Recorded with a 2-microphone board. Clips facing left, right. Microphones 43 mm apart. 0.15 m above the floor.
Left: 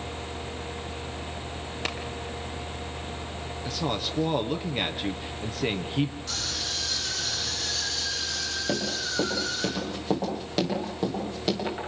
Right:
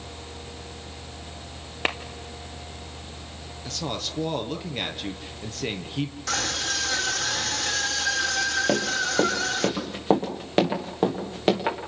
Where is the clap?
30° right (ahead or behind), 2 m.